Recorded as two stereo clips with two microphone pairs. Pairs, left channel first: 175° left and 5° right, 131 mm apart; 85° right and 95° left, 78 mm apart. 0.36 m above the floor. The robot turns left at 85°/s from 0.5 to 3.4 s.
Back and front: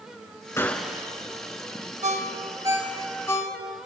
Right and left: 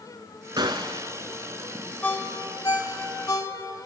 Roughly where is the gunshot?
Left.